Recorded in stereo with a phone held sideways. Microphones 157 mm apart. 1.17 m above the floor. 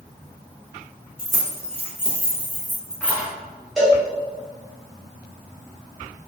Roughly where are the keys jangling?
Right.